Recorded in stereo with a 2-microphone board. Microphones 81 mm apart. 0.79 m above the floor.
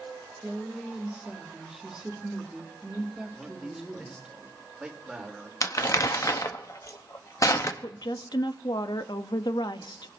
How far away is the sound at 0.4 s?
About 3 m.